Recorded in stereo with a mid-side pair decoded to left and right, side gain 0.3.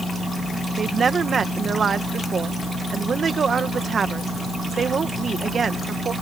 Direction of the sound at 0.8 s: 60° right.